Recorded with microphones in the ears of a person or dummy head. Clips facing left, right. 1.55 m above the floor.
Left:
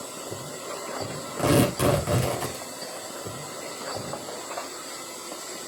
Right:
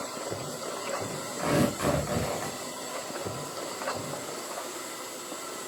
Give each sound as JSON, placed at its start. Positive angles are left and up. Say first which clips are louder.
{"t": 1.4, "sound": "tearing paper", "louder": "left 5 dB", "side_deg": 55, "distance_m": 4.0}